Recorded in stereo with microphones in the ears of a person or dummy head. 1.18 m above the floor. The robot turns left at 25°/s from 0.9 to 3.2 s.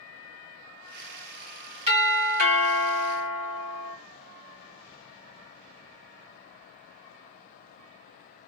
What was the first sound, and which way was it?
A doorbell, 40° right.